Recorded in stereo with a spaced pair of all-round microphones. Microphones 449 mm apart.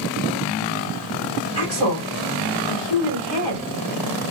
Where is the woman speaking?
75° left (ahead or behind), 2.5 m.